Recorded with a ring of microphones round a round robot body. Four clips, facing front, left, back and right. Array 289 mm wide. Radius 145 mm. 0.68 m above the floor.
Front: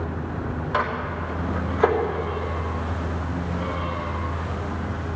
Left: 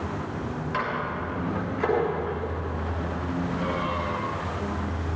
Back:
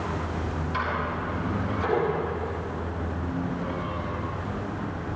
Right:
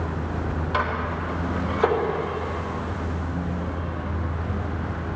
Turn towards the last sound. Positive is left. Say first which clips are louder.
# right 3 dB, front 4 dB
turn(degrees=-20)